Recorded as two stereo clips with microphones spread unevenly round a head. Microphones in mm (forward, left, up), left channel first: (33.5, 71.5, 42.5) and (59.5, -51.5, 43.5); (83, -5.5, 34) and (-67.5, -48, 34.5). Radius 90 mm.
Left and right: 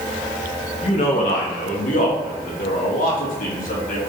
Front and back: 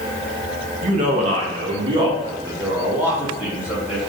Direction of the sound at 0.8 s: 150° left.